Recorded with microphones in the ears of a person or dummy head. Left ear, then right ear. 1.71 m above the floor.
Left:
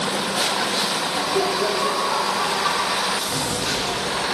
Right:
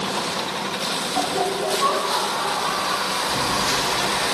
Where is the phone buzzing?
75° left (ahead or behind), 5 m.